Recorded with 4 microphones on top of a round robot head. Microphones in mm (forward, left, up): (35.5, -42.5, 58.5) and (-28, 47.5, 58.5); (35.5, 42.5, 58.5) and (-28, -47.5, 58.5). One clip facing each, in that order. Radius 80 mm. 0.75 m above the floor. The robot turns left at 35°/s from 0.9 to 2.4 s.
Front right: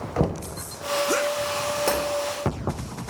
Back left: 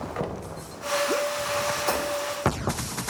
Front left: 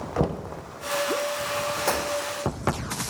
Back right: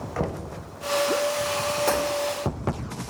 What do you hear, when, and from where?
0.2 s knocking: 10° right, 0.6 m
1.9 s breaking glass: 35° right, 4.5 m; by 2.0 s 40° right, 4.5 m